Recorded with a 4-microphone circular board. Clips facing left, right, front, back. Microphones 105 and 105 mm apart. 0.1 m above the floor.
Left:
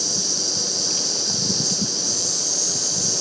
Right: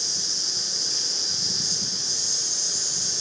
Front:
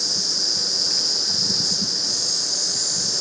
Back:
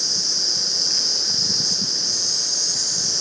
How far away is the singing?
No singing in this recording.